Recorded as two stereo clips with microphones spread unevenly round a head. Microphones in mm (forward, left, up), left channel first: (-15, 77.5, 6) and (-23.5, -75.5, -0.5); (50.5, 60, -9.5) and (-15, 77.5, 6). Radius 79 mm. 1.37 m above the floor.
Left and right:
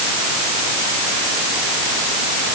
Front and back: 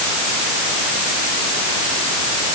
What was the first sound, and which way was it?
Only background noise.